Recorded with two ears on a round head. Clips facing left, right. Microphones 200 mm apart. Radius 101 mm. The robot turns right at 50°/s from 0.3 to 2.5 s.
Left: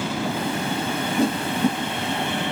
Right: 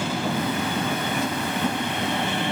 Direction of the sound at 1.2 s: 30° left (ahead or behind).